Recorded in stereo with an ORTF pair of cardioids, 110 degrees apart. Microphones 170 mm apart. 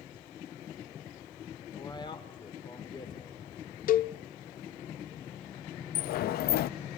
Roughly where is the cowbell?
Ahead left.